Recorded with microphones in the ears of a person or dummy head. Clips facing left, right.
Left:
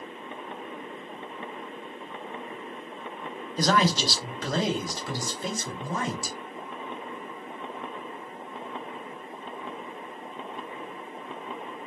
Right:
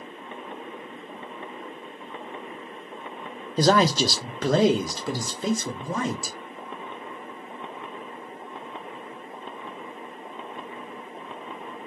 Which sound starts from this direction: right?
A man speaking, at 3.6 s.